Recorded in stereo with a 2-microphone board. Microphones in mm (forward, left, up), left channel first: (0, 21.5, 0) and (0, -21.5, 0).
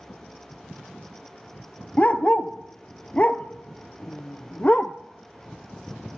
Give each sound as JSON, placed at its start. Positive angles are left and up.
{"t": 2.0, "sound": "a dog barking", "side_deg": 30, "distance_m": 0.6}